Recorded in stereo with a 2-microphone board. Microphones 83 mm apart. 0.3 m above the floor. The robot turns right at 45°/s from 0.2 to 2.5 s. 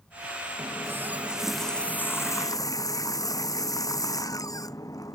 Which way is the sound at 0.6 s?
40° right.